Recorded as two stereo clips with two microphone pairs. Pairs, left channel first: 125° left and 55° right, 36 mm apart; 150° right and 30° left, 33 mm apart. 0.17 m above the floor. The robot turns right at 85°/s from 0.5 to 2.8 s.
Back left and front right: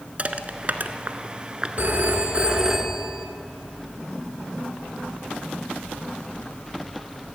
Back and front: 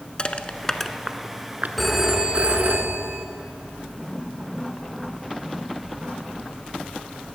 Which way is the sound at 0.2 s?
95° right.